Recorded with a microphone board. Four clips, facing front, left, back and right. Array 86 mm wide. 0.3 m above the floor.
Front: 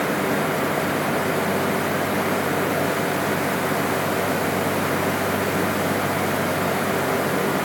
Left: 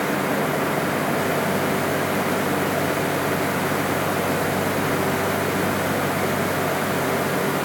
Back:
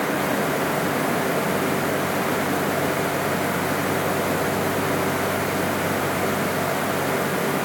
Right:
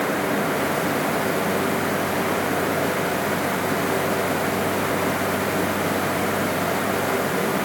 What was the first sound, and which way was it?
Only background noise.